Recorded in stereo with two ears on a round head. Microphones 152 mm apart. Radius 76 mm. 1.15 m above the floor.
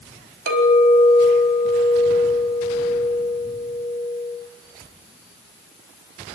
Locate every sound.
0.5 s a clink: 60° right (ahead or behind), 4 m